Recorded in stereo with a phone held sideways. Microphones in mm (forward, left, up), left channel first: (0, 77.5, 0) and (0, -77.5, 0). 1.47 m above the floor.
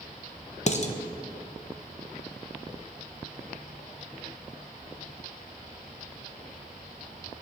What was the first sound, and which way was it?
Dishes clattering, 45° left (ahead or behind).